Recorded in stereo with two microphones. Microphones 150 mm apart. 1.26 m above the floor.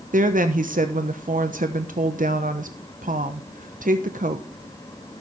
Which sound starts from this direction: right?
A woman speaking, at 0.1 s.